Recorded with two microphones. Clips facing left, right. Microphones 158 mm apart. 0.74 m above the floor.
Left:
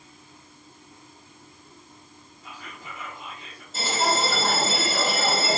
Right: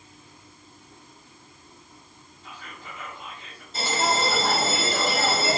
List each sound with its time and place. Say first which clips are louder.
2.4 s whispering: left 1 dB; 10° left (ahead or behind), 1.1 m
3.7 s a bell: even; 5° left (ahead or behind), 1.2 m